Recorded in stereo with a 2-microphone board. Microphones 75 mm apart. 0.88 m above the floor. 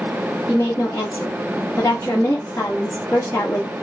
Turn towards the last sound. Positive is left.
turn(degrees=35)  # may be behind; listen again after turning